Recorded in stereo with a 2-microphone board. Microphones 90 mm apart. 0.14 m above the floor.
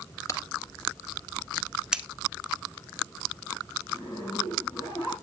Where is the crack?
30° left (ahead or behind), 1.9 m.